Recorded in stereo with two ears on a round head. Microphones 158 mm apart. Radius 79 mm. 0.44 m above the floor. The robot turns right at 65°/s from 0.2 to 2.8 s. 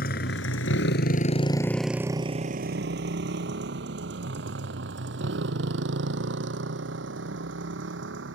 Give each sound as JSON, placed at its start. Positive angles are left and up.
{"t": 0.0, "sound": "a motorcycle", "side_deg": 55}